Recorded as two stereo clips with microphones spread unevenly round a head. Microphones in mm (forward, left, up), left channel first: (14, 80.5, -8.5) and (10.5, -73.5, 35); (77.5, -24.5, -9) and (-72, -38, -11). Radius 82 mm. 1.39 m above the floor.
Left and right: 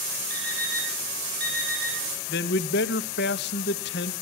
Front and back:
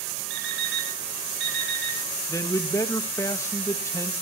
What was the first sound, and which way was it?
An alarm clock, 170° left.